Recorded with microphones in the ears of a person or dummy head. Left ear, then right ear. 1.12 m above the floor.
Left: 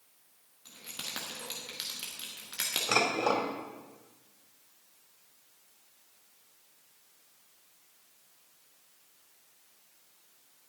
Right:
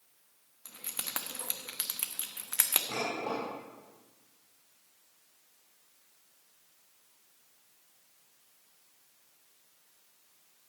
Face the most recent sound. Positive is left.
turn(degrees=65)  # may be behind; listen again after turning